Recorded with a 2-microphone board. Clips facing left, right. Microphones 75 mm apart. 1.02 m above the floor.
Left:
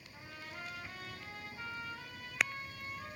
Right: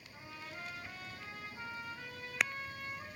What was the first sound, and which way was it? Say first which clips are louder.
A trumpet: even; 25° right (ahead or behind).